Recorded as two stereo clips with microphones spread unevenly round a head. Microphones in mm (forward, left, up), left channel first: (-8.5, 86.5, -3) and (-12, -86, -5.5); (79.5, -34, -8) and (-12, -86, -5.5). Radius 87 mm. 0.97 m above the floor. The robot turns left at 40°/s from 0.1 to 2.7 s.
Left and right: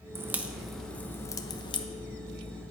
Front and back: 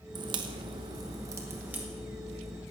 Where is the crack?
160° right, 0.9 m; by 1.9 s 135° left, 0.9 m.